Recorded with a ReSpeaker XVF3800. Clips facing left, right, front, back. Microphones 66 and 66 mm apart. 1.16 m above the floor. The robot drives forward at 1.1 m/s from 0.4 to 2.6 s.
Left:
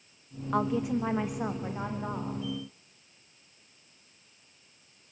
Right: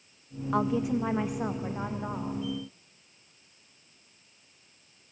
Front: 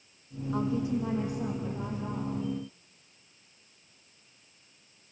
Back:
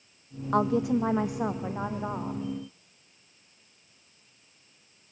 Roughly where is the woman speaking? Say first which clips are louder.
Right 1 dB, back 5 dB; behind.